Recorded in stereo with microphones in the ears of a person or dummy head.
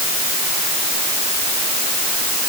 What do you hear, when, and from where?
Only background noise.